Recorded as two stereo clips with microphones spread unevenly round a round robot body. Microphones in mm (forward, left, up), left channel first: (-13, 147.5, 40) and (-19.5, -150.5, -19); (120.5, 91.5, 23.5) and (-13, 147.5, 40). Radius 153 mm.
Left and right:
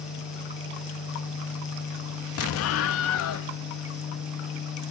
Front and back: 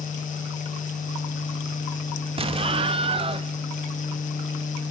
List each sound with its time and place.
2.4 s an explosion: 120° left, 0.6 m